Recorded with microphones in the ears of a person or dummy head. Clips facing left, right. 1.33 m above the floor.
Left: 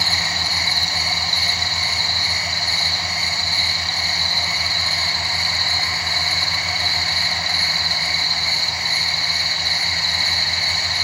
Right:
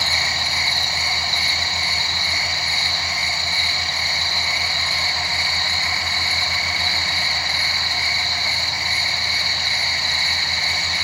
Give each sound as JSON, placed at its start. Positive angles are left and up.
{"t": 0.0, "sound": "an insect", "side_deg": 40, "distance_m": 0.8}